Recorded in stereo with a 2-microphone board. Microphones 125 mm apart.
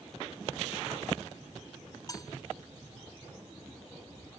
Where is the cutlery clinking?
30° left (ahead or behind).